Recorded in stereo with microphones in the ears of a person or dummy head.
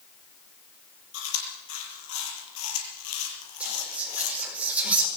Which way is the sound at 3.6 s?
10° right (ahead or behind).